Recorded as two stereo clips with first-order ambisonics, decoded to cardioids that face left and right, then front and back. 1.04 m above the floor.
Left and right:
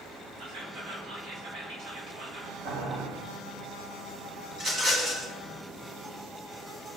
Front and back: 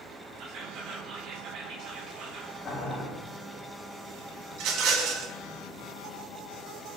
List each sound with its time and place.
0.4 s whispering: 140° right, 2.5 m
2.6 s boiling: 70° right, 3.5 m
4.5 s a rattle: 160° right, 2.5 m